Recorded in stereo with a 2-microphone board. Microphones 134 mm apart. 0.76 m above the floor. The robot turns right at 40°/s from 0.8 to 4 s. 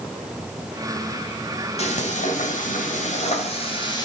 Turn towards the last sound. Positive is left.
turn(degrees=145)